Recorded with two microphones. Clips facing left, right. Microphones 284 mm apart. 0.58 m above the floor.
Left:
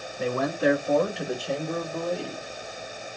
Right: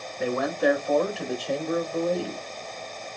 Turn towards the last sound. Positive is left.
turn(degrees=-30)  # may be behind; listen again after turning